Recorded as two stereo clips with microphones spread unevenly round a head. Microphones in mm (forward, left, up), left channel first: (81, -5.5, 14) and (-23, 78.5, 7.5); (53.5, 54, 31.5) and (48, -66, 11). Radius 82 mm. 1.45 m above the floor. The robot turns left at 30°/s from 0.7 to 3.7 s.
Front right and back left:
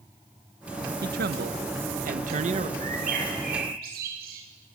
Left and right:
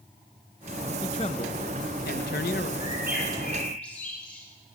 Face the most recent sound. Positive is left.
turn(degrees=170)